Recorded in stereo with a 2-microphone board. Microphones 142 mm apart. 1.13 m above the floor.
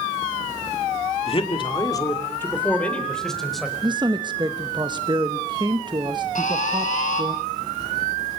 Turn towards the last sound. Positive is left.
turn(degrees=65)  # may be behind; listen again after turning